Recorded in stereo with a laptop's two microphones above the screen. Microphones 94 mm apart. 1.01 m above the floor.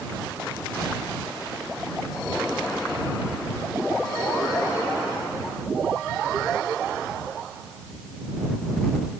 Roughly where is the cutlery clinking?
No cutlery clinking in this recording.